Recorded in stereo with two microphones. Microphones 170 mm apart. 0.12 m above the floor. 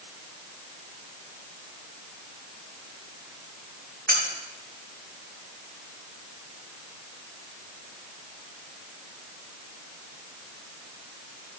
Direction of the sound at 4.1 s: 75° right (ahead or behind).